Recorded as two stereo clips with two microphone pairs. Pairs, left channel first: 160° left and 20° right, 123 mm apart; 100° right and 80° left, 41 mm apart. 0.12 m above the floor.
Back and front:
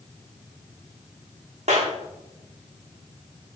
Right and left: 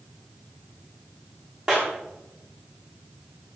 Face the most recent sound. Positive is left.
turn(degrees=15)